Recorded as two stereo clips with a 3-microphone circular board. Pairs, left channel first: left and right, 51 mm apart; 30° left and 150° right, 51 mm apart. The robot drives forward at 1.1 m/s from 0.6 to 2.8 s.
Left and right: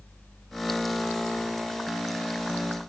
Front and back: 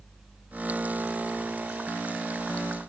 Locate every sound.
Only background noise.